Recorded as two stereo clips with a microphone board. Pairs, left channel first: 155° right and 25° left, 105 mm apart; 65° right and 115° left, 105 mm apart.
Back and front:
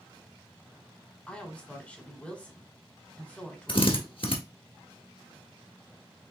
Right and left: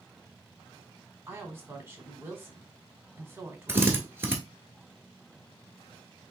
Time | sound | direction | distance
1.3 | a woman speaking | 140° left | 1.4 m
3.7 | a drill | straight behind | 1.3 m